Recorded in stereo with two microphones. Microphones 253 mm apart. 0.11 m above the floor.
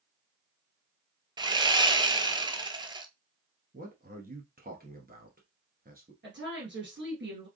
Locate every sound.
1.4 s sawing: 15° right (ahead or behind), 0.5 m
3.7 s a man speaking: 35° right (ahead or behind), 1.4 m
6.2 s a woman speaking: 45° right (ahead or behind), 1.7 m